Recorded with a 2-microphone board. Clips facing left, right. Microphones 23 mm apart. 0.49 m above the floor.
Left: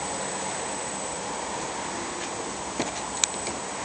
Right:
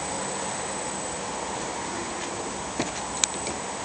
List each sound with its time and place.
Only background noise.